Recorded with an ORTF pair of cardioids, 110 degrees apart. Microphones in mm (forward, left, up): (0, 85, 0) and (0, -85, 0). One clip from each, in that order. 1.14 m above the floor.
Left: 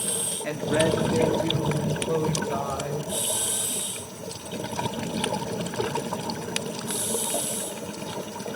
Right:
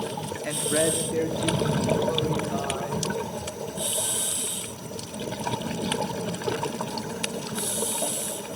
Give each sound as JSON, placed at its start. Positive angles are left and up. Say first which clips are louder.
{"t": 0.4, "sound": "a woman speaking", "louder": "left 1 dB", "azimuth_deg": 0, "distance_m": 3.0}